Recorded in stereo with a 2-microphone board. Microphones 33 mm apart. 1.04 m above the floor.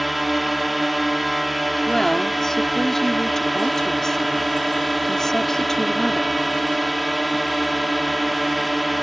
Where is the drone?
Centre (ahead or behind).